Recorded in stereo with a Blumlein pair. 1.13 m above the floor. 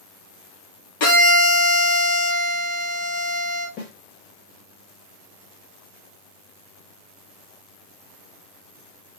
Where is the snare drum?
40° left, 1.6 m.